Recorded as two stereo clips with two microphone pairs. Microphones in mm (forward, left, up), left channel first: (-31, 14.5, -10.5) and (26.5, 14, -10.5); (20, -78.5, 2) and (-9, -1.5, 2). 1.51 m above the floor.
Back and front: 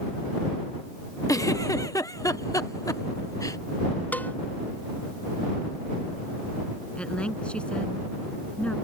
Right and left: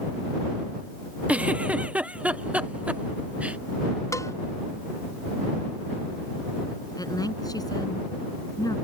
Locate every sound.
1.3 s a giggle: 175° right
4.1 s a cowbell: 120° right
7.0 s a woman speaking: 110° right